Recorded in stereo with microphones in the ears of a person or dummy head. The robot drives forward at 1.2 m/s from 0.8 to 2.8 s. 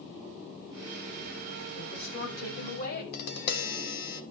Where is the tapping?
55° left (ahead or behind), 1.1 m.